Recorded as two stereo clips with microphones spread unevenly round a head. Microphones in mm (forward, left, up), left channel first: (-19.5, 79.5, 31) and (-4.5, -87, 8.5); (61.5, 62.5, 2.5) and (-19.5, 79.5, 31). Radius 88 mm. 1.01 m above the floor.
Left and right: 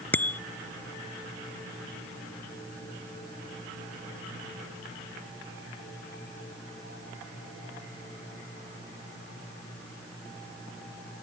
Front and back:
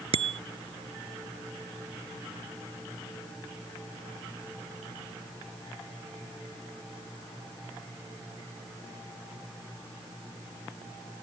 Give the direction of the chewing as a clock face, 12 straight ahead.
I don't hear chewing.